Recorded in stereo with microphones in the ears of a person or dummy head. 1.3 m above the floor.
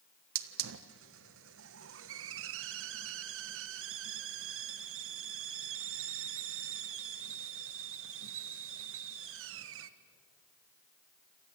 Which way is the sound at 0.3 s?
70° right (ahead or behind).